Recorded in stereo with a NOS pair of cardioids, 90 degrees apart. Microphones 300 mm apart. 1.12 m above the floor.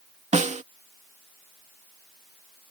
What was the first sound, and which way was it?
A snare drum, 25° right.